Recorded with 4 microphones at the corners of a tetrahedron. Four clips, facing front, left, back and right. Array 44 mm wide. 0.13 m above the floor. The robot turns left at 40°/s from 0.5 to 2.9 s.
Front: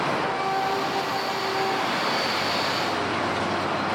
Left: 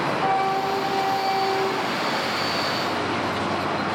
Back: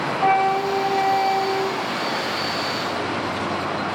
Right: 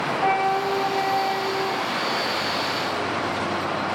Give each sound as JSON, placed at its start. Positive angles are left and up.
{"t": 0.2, "sound": "a flute", "azimuth_deg": -150, "distance_m": 0.9}